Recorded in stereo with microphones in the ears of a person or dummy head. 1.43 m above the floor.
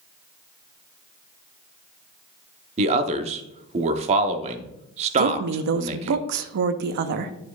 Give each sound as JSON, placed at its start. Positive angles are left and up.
{"t": 2.8, "sound": "a man speaking", "side_deg": -35, "distance_m": 0.7}
{"t": 5.2, "sound": "a woman speaking", "side_deg": -55, "distance_m": 0.6}